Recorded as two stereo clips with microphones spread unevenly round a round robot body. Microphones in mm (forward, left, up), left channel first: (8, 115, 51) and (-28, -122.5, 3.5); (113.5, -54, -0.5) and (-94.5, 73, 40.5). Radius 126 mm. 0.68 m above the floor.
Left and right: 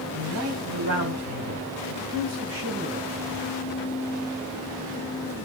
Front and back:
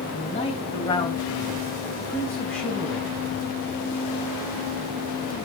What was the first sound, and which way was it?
A man speaking, 90° right.